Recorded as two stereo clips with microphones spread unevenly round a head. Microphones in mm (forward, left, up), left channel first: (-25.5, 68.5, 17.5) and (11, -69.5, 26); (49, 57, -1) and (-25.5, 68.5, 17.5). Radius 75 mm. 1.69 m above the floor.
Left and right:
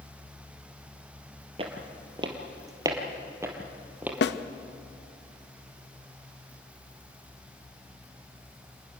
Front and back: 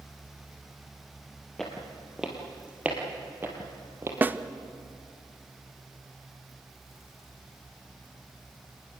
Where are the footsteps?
110° right, 2.5 m; by 4.1 s 150° right, 2.5 m.